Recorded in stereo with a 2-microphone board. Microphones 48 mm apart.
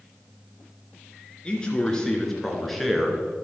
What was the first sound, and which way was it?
A man speaking, 20° left (ahead or behind).